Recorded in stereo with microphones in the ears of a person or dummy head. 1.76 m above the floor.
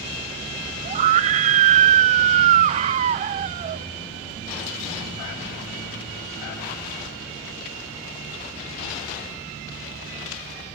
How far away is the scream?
About 0.5 m.